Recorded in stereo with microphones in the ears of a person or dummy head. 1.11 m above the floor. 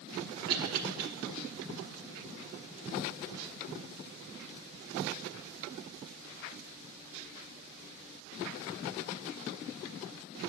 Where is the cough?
70° right (ahead or behind), 0.9 m.